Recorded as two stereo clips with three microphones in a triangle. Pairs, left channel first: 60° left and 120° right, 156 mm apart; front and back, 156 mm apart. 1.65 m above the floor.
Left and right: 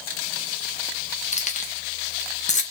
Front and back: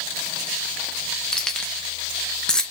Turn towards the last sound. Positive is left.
turn(degrees=85)